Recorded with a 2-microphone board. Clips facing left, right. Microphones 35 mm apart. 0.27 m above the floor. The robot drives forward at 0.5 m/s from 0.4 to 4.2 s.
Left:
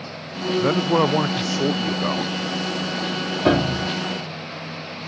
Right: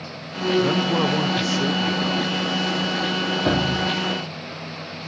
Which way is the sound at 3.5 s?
25° left (ahead or behind).